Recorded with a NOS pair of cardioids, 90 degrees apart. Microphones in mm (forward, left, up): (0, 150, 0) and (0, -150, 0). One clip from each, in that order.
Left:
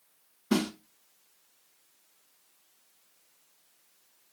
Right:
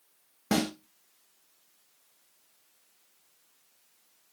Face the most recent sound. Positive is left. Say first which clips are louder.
# right 1 dB
turn(degrees=-60)